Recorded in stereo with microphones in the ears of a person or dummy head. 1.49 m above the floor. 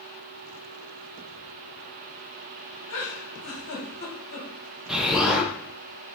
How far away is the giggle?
About 2 m.